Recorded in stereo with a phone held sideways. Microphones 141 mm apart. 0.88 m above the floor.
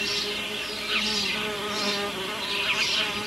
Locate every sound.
0.0 s an insect: centre (ahead or behind)